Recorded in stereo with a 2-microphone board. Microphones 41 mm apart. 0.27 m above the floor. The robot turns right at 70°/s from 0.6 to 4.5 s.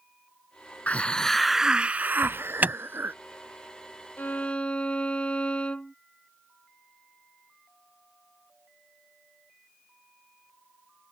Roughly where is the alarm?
Right.